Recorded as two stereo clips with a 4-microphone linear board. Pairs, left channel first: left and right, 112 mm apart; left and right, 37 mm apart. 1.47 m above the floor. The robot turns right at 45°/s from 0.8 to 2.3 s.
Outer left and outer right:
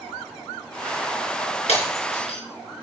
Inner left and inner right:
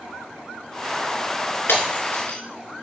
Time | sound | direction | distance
1.7 | breaking glass | 75° left (ahead or behind) | 4.5 m